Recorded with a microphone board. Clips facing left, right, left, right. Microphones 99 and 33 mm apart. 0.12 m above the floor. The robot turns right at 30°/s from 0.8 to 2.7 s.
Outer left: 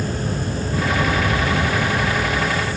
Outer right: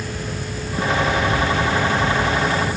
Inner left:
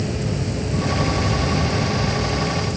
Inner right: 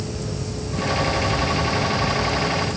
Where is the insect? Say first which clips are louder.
Outer left 4 dB, inner left 4 dB; 130° left, 1.2 m; by 2.8 s 170° right, 1.2 m.